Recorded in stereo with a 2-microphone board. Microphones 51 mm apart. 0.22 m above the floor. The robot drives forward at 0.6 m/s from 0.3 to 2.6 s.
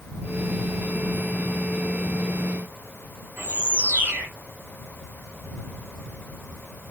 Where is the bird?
35° right (ahead or behind), 1.2 m.